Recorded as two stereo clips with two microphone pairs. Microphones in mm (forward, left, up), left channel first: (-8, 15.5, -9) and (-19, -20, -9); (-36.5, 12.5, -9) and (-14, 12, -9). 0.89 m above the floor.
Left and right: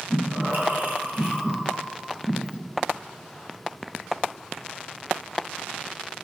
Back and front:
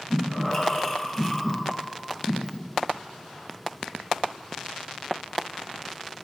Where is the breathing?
115° right, 1.5 m.